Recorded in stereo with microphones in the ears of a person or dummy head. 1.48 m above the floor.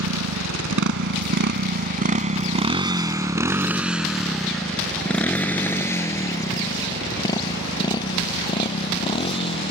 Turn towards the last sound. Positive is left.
turn(degrees=30)  # may be behind; listen again after turning